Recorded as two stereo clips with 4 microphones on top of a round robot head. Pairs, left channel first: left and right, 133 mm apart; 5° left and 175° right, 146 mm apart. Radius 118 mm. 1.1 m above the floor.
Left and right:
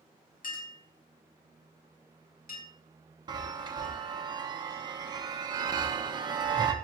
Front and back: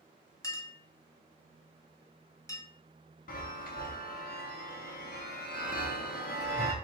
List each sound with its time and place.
0.4 s a clink: 70° left, 0.9 m
3.3 s a chime: 30° right, 0.6 m